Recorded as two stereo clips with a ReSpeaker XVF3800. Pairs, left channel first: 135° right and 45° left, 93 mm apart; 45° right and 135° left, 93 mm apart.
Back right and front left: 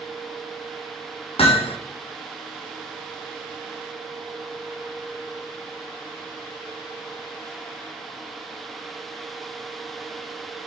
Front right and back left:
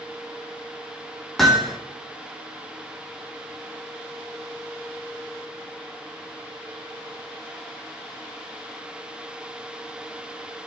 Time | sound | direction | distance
1.4 | hammering | 130° right | 2 m